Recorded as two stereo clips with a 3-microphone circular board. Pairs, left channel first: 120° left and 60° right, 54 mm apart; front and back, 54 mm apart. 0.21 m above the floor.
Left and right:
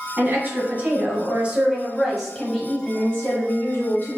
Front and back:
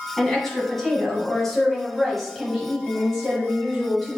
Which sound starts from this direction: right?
A woman speaking, at 0.2 s.